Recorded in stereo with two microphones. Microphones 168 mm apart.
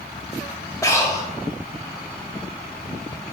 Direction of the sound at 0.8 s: 20° left (ahead or behind).